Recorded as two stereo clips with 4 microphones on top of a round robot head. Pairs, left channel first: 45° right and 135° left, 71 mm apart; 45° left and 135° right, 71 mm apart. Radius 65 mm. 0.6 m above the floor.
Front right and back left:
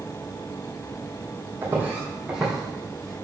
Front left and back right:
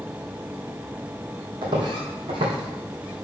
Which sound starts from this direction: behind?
Footsteps, at 1.6 s.